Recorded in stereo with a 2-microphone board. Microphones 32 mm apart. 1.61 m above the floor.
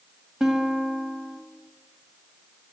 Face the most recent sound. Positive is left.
turn(degrees=-15)  # may be behind; listen again after turning